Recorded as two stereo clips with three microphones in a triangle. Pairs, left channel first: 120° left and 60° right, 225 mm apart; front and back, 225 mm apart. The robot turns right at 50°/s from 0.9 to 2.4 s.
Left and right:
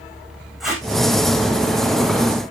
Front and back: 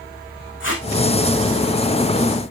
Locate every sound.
0.6 s tape being pulled: 30° left, 4.5 m